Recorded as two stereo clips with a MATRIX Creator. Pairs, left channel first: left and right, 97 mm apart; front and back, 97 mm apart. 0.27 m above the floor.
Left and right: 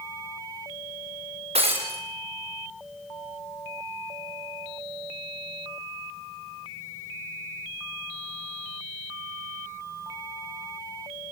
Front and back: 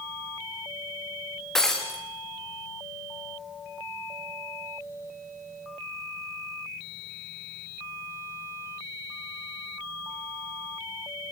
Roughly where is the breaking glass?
Right.